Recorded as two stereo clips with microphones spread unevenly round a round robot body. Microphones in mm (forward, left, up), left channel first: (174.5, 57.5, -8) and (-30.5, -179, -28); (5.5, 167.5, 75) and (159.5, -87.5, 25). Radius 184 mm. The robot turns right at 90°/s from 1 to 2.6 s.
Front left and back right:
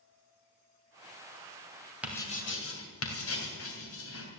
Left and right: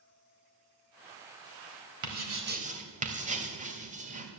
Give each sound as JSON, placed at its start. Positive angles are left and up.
{"t": 2.0, "sound": "writing", "azimuth_deg": -45, "distance_m": 3.0}